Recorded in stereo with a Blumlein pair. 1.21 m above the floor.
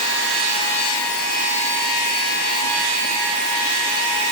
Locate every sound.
Only background noise.